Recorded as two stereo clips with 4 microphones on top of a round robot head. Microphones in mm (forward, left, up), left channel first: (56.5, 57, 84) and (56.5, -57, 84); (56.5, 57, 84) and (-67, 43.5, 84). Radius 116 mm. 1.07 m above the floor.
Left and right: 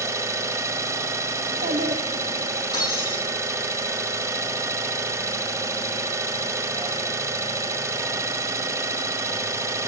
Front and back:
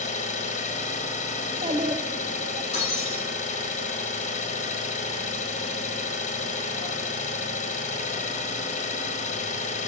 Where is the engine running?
25° right, 1.4 m.